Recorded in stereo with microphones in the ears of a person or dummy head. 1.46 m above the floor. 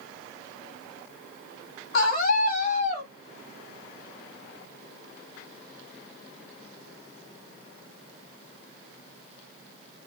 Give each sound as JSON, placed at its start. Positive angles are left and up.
{"t": 1.9, "sound": "a scream", "side_deg": 50, "distance_m": 1.3}